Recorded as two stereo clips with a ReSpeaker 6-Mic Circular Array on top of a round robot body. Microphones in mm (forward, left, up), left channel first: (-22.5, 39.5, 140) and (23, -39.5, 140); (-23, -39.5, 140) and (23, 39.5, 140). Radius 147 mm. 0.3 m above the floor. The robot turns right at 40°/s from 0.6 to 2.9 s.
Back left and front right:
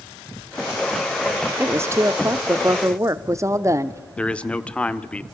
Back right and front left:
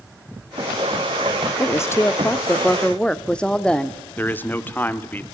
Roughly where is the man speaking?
Behind.